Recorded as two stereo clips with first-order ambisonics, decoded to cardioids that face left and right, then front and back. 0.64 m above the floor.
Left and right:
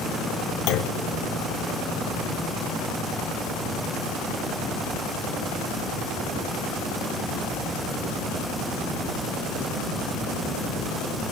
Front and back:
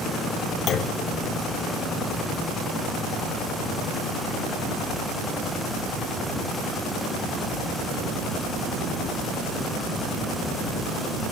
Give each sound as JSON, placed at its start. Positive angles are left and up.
{"t": 0.7, "sound": "a clunk", "azimuth_deg": 55, "distance_m": 0.5}